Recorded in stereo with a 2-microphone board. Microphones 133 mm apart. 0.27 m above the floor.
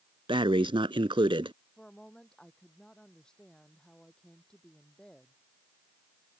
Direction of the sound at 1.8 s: 5° left (ahead or behind).